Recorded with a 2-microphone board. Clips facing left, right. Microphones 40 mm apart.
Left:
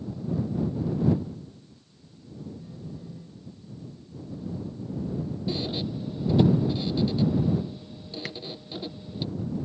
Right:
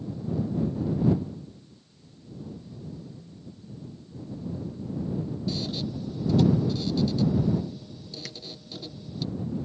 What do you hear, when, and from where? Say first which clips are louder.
2.5 s a phone buzzing: even; 25° left (ahead or behind)
5.5 s a squeak: left 3 dB; 25° left (ahead or behind)
8.2 s tapping: left 7 dB; 30° left (ahead or behind)